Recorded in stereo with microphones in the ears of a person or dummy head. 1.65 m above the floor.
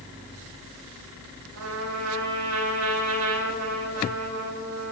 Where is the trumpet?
85° right, 8 m.